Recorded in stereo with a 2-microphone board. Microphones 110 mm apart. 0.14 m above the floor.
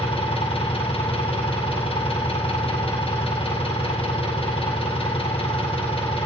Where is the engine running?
55° left (ahead or behind), 3.5 m.